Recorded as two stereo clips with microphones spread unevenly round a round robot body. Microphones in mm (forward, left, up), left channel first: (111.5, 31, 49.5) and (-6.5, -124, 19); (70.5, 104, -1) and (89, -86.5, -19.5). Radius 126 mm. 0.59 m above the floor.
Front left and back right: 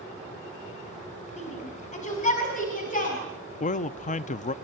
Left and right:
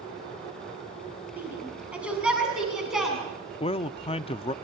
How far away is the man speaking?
About 0.6 m.